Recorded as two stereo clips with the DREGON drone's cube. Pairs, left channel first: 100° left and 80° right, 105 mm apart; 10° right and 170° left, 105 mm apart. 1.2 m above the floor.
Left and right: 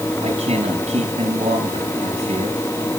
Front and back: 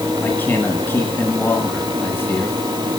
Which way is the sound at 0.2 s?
85° right.